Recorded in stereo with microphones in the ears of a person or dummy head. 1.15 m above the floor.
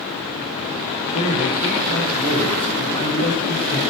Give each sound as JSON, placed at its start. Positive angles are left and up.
{"t": 1.1, "sound": "a man speaking", "side_deg": 45, "distance_m": 4.0}